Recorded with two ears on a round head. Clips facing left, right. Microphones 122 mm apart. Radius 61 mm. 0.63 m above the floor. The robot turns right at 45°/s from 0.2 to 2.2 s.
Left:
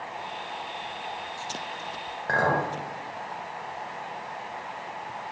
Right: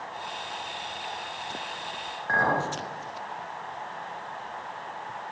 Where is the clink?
45° left (ahead or behind), 1.8 m.